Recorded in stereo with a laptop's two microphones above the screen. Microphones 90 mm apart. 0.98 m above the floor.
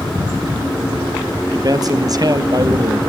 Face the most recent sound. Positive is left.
turn(degrees=-45)  # may be behind; listen again after turning